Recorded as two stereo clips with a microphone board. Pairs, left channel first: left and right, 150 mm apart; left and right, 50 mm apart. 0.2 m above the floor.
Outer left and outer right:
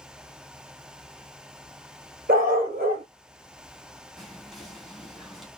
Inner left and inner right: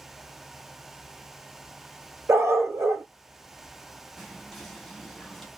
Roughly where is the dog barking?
Right.